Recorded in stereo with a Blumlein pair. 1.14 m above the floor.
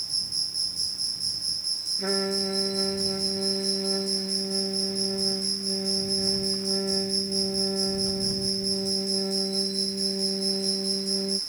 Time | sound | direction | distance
0.0 | an insect | 10° right | ?
2.0 | a trumpet | straight ahead | ?